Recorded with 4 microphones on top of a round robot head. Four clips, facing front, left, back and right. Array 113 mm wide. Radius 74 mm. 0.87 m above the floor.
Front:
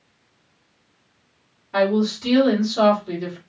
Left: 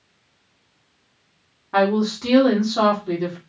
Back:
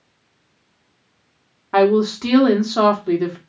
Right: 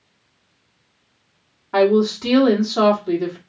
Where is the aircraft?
No aircraft in this recording.